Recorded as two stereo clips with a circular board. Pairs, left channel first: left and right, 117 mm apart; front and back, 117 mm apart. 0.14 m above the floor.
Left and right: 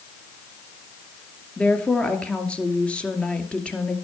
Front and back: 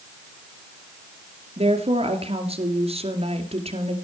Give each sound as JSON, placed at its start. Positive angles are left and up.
{"t": 1.6, "sound": "a woman speaking", "azimuth_deg": 170, "distance_m": 2.5}